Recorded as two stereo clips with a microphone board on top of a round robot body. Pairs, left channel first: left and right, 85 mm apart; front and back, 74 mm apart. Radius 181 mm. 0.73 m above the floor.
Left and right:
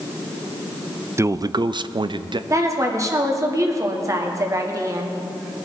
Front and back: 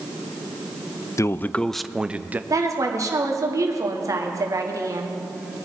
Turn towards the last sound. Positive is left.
turn(degrees=-140)